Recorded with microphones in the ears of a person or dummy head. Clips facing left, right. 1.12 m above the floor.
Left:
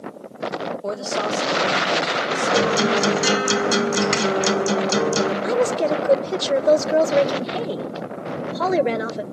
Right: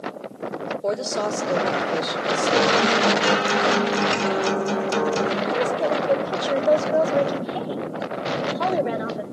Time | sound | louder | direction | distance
0.8 | a woman speaking | right 3 dB | 25° right (ahead or behind) | 3.5 m
2.5 | a guitar | left 1 dB | 25° left (ahead or behind) | 1.8 m
5.4 | a woman speaking | left 3 dB | 35° left (ahead or behind) | 0.7 m